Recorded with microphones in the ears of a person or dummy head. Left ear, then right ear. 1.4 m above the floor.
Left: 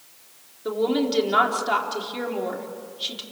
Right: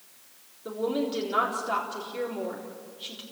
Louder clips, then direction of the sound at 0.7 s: Left 6 dB; 25° left (ahead or behind).